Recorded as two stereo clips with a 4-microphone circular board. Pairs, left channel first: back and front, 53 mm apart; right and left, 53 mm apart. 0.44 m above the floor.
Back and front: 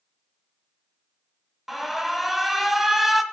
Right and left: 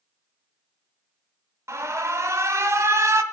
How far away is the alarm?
About 1.6 m.